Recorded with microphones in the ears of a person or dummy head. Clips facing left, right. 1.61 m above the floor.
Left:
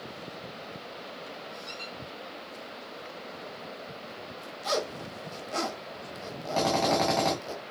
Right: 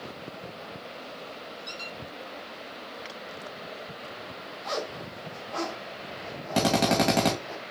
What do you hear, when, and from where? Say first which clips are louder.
1.7 s a squeak: right 1 dB; 20° right (ahead or behind), 2 m
4.6 s a zipper: left 3 dB; 45° left (ahead or behind), 1.6 m
6.5 s a drill: right 2 dB; 50° right (ahead or behind), 2.5 m